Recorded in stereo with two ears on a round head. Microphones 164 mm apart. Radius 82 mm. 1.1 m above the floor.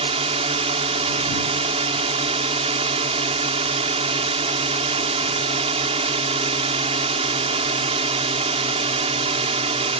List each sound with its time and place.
0.0 s a drone: 35° right (ahead or behind)